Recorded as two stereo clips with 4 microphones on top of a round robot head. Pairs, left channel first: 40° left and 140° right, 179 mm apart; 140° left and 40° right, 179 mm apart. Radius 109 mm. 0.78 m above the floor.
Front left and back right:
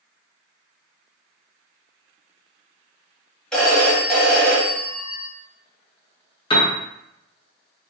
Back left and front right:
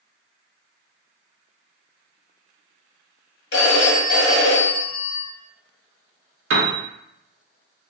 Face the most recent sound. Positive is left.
turn(degrees=-25)